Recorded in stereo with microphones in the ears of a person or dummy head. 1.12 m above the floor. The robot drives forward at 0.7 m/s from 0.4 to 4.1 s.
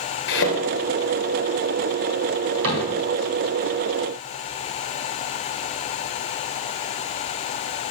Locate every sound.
0.3 s a thud: 70° left (ahead or behind), 2.5 m; by 0.6 s 65° left (ahead or behind), 2.5 m
2.6 s a cupboard door: 80° right, 4.5 m; by 2.9 s 85° right, 4.5 m